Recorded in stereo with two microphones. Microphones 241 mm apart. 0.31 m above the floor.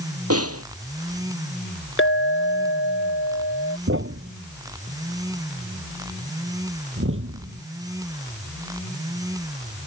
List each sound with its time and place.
0.3 s a snare drum: 80° right
2.0 s a clink: 55° left (ahead or behind)
3.9 s a thud: 60° right (ahead or behind)